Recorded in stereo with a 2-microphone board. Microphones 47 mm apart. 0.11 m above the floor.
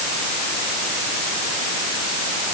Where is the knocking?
No knocking in this recording.